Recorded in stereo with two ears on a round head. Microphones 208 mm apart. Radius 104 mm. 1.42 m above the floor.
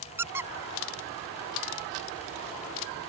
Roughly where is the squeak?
Centre.